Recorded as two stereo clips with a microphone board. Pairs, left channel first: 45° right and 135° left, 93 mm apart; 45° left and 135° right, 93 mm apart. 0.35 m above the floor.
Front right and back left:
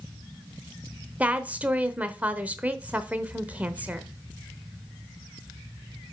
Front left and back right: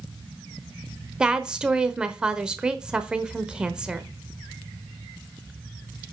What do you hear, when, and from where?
1.2 s a woman speaking: 165° left, 0.8 m